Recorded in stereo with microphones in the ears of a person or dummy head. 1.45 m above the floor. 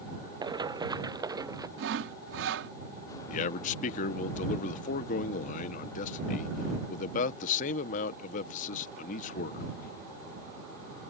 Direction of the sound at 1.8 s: 65° right (ahead or behind).